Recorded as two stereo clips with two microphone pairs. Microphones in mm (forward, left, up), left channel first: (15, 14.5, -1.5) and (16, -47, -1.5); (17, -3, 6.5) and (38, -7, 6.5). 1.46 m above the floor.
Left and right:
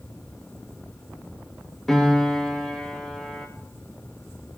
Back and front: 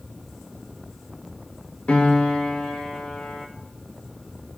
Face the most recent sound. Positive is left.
turn(degrees=175)